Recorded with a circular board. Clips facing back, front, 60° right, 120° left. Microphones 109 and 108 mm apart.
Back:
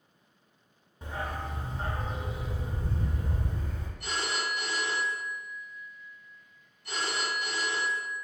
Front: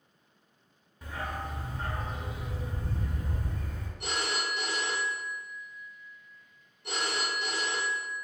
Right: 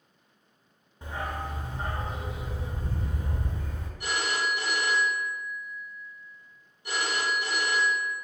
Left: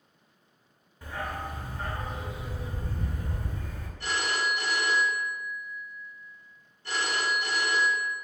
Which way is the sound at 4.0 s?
15° left.